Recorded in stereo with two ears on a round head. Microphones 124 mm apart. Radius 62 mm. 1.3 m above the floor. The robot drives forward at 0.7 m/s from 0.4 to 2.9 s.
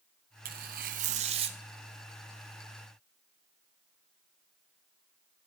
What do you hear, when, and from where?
0.5 s tearing paper: 65° right (ahead or behind), 0.7 m; by 1.6 s 40° right (ahead or behind), 0.9 m